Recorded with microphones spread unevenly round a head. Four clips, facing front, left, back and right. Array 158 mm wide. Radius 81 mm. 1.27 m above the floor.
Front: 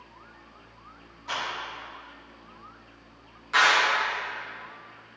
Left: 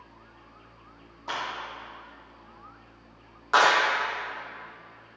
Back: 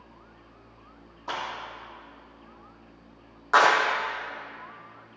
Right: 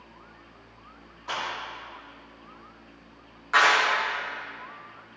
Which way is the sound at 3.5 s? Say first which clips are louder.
Left 1 dB, back 3 dB; 150° left.